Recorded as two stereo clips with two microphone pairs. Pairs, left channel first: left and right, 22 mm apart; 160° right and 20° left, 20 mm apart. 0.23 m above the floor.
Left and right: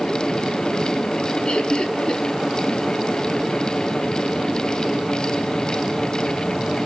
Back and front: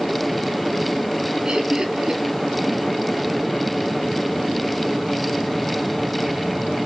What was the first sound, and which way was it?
Laughter, 55° left.